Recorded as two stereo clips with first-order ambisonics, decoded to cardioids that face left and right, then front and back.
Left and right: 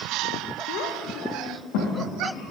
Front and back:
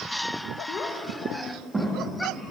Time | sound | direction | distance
0.7 | a child speaking | 55° left | 0.7 m